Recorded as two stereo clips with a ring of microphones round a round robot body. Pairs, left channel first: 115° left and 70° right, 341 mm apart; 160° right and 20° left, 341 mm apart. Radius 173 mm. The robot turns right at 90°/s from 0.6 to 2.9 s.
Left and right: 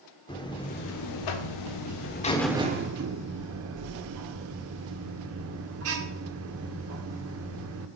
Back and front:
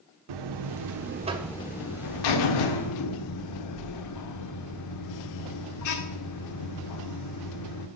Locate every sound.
0.3 s a buzzer: 35° left, 1.3 m; by 7.9 s 120° right, 1.3 m